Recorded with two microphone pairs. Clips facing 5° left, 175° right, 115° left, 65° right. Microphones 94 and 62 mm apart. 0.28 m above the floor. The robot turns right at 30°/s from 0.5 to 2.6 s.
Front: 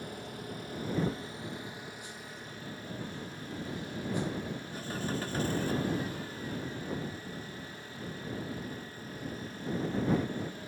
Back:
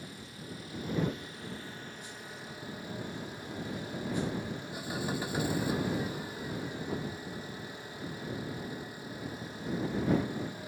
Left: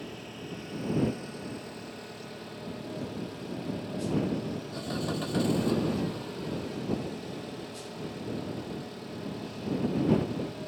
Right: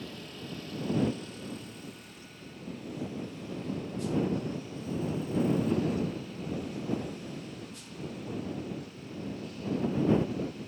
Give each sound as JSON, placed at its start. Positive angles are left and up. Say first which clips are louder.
{"t": 0.0, "sound": "an engine running", "louder": "front 5 dB, left 2 dB", "azimuth_deg": 45}